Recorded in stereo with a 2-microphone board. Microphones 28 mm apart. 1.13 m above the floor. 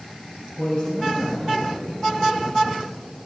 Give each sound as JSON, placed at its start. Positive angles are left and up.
{"t": 0.6, "sound": "a man speaking", "side_deg": 30, "distance_m": 6.5}